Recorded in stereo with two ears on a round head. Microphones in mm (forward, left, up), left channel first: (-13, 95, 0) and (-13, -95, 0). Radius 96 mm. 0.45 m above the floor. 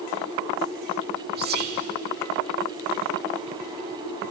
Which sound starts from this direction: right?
Whispering, at 1.4 s.